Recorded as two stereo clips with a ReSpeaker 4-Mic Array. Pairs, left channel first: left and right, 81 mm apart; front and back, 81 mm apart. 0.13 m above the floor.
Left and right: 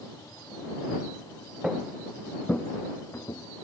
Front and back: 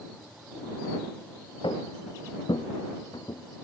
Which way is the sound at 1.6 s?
10° right.